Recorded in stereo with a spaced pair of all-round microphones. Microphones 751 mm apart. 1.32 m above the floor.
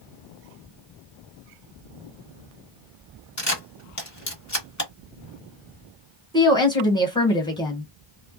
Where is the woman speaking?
5° left (ahead or behind), 1.4 m.